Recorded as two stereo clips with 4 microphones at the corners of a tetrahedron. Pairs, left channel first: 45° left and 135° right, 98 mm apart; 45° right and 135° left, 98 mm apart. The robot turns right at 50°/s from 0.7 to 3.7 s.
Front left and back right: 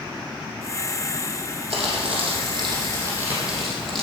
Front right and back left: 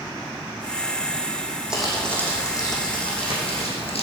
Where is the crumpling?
145° right, 3 m; by 4.0 s 45° right, 3 m.